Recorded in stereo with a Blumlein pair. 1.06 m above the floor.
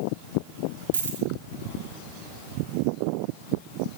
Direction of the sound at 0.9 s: 65° right.